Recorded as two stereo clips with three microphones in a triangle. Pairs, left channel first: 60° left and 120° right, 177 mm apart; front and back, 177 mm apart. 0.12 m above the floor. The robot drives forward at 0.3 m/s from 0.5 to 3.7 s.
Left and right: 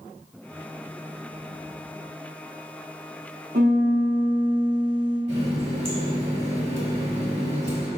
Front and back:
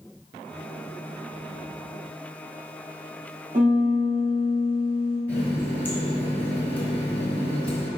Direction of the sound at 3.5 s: 150° right.